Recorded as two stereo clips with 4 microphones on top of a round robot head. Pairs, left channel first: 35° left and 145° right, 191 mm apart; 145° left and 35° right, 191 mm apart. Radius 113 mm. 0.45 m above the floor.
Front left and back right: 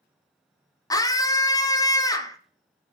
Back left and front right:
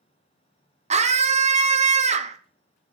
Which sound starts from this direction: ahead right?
A scream, at 0.9 s.